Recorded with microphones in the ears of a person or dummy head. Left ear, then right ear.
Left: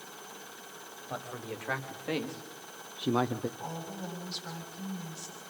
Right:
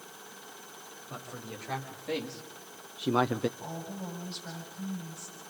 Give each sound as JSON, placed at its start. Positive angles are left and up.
{"t": 1.1, "sound": "a man speaking", "side_deg": 35, "distance_m": 3.5}
{"t": 3.6, "sound": "a woman speaking", "side_deg": 25, "distance_m": 6.5}